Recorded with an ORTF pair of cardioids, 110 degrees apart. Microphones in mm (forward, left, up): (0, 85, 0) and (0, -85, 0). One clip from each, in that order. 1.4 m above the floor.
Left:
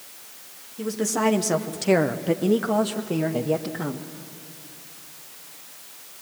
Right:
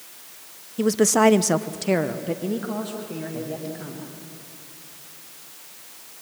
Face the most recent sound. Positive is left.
turn(degrees=55)